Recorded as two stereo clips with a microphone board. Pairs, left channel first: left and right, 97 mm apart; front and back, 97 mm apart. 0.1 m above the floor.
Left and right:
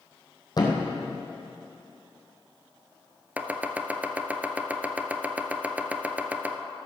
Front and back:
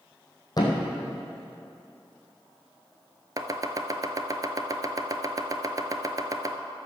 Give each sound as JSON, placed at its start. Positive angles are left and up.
{"t": 0.6, "sound": "a thud", "azimuth_deg": 45, "distance_m": 2.0}
{"t": 3.4, "sound": "chopping", "azimuth_deg": -155, "distance_m": 0.7}